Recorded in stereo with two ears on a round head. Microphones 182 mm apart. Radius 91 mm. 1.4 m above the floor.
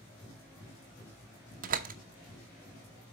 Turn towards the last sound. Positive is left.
turn(degrees=-45)  # may be behind; listen again after turning